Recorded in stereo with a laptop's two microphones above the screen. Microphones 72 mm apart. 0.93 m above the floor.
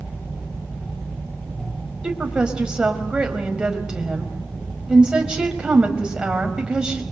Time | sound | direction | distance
2.0 | a woman speaking | 15° right (ahead or behind) | 5 m